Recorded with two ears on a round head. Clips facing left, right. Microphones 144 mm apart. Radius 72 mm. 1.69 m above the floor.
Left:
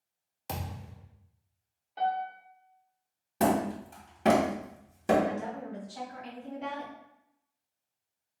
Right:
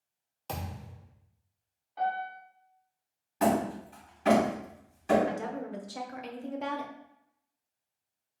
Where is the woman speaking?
70° right (ahead or behind), 1.0 m.